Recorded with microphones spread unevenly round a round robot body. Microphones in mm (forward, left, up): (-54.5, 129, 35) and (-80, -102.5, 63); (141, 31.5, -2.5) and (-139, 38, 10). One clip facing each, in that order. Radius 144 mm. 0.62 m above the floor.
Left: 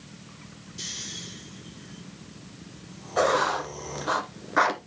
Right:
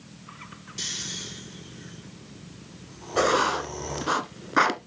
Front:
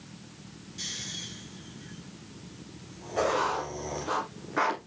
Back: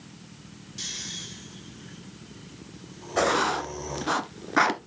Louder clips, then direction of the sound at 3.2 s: Right 1 dB, back 3 dB; 150° right.